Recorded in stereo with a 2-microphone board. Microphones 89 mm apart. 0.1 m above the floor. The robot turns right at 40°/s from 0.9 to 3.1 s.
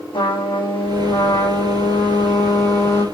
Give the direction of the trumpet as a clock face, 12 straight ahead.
10 o'clock.